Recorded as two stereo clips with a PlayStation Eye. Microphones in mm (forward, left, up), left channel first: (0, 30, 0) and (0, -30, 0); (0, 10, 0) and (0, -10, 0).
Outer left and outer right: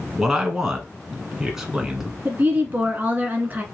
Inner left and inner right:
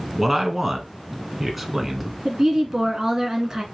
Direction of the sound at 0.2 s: 10° right (ahead or behind).